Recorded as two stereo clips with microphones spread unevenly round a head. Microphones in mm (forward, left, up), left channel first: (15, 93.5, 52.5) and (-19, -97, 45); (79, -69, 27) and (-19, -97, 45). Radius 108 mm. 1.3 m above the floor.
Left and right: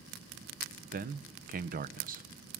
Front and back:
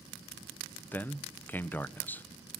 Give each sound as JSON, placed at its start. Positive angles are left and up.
{"t": 0.9, "sound": "a man speaking", "azimuth_deg": -55, "distance_m": 0.9}